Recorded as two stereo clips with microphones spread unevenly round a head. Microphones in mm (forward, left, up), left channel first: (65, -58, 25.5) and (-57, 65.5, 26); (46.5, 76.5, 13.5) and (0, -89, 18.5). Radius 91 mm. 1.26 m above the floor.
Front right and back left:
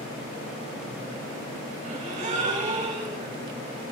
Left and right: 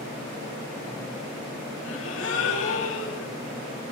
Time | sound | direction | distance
1.8 | a gasp | 80° left | 6 m